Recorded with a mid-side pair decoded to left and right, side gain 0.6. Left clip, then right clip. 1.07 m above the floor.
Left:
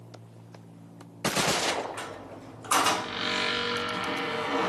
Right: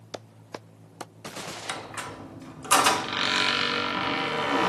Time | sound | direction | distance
1.7 | a squeak | 30° right | 0.8 m